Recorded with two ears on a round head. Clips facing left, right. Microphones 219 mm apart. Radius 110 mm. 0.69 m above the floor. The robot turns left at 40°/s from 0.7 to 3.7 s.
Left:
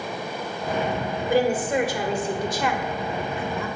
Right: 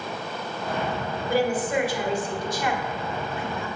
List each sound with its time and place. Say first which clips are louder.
1.3 s a woman speaking: left 2 dB; 15° left (ahead or behind), 2 m; by 3.7 s 65° left (ahead or behind), 2 m